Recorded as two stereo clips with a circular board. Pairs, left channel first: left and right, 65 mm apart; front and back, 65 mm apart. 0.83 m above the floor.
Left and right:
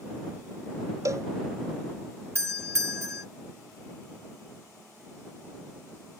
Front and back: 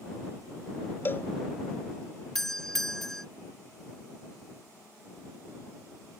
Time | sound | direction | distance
1.1 | a cowbell | 55° right | ?
2.4 | a doorbell | 80° right | ?